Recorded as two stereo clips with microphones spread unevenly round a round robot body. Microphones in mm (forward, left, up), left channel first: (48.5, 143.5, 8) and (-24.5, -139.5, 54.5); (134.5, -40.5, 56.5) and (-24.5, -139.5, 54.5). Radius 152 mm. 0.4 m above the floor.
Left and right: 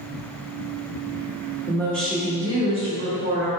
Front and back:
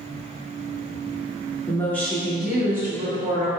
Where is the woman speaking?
80° left, 1.3 m; by 3.5 s 120° right, 1.3 m.